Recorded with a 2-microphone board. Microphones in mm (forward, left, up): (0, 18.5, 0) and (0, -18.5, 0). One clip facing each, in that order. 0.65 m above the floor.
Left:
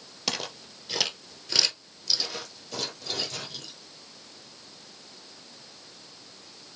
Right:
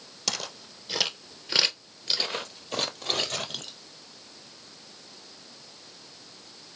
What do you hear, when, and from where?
0.3 s footsteps: 15° left (ahead or behind), 1.0 m; by 3.7 s 65° right (ahead or behind), 1.4 m